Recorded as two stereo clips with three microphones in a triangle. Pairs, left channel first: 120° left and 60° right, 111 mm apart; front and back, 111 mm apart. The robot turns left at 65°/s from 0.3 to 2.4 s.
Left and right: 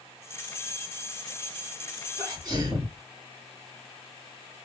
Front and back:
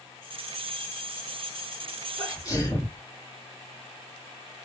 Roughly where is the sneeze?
Ahead.